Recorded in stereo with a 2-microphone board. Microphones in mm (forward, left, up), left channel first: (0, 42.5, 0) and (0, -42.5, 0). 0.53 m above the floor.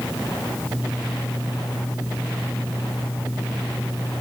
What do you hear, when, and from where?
Only background noise.